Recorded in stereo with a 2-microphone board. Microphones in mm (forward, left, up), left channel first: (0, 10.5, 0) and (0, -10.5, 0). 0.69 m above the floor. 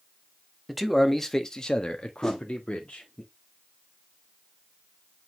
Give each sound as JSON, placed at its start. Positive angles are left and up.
{"t": 0.7, "sound": "a man speaking", "side_deg": -5, "distance_m": 1.1}
{"t": 2.2, "sound": "a whoosh", "side_deg": 25, "distance_m": 2.0}